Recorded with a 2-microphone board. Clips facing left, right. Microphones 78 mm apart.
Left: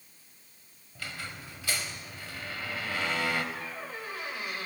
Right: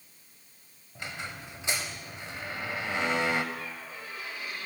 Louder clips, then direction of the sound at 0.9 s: Right 2 dB; 25° right (ahead or behind).